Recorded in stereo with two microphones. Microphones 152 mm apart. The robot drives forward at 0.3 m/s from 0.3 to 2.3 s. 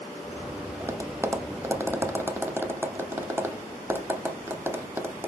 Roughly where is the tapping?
Centre.